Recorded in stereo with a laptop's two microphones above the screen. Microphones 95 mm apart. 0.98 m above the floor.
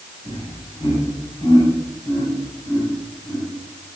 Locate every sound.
0.2 s laughter: 50° left (ahead or behind), 6.5 m